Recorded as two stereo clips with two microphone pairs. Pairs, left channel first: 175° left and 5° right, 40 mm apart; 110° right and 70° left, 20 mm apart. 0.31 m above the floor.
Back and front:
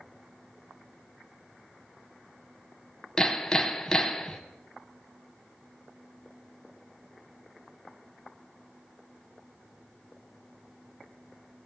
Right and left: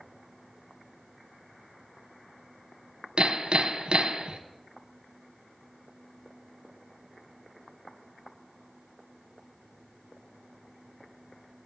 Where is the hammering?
105° left, 0.6 m.